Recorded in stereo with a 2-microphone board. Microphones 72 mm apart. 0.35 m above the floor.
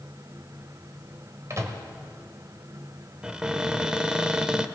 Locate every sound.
1.5 s a microwave: 45° right (ahead or behind), 1.5 m
3.2 s a cupboard door: 10° right (ahead or behind), 0.6 m